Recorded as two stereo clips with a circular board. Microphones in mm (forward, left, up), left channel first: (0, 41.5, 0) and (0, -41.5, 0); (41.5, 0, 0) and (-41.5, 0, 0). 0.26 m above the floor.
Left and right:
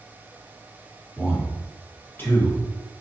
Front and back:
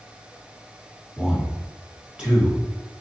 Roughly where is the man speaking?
Left.